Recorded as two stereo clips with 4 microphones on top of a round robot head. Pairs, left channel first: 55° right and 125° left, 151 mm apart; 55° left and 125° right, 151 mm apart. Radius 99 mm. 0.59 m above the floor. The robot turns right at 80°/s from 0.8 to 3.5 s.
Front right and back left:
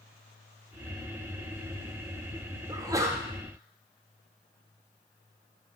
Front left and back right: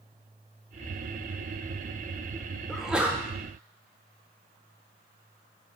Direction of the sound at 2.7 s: 135° left.